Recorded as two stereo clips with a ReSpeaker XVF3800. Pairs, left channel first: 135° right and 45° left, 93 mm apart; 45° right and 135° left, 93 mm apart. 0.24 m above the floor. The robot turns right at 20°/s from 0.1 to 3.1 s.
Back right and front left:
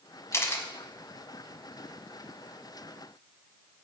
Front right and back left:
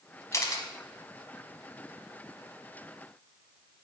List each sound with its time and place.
0.3 s a camera shutter: 85° right, 1.1 m; by 0.7 s 80° right, 1.1 m